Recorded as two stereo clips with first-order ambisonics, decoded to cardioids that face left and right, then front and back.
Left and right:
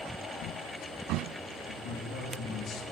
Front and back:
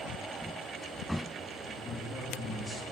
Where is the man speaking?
80° left, 1.1 m.